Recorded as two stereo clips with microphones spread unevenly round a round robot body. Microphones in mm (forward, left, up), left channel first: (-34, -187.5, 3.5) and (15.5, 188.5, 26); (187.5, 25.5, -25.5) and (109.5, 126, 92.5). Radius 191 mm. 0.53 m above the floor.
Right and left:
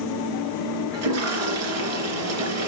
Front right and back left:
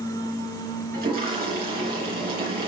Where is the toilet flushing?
135° left, 3.5 m.